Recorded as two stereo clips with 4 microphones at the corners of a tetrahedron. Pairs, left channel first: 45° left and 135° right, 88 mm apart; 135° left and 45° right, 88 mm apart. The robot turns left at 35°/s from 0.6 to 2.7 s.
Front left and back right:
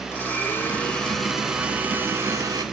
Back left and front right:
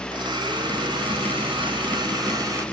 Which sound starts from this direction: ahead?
A blender, at 0.1 s.